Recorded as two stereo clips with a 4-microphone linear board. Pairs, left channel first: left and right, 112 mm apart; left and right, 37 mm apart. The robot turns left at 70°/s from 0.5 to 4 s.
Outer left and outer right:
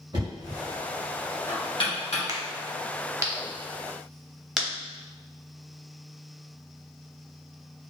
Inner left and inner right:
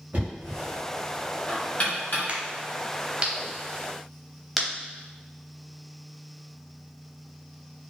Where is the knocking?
45° right (ahead or behind), 1.3 m; by 2.2 s 75° left (ahead or behind), 1.3 m.